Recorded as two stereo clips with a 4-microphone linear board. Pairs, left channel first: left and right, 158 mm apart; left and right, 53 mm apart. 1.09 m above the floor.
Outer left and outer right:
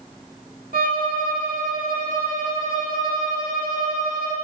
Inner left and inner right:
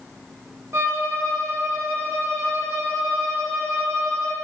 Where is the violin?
65° right (ahead or behind), 1.3 m.